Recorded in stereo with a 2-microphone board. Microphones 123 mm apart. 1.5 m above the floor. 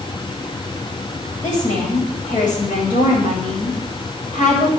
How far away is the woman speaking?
About 9 m.